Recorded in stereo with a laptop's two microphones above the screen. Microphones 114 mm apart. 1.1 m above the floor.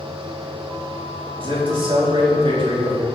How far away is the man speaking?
About 2.5 m.